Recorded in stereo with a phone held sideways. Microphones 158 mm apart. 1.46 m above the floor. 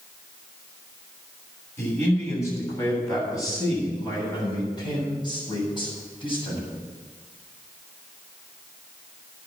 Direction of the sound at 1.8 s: 15° left (ahead or behind).